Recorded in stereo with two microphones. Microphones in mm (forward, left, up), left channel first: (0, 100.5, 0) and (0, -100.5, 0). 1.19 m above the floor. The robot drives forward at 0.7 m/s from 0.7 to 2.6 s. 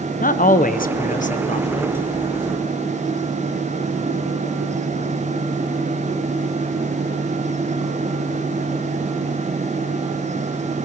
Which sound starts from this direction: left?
A man speaking, at 0.2 s.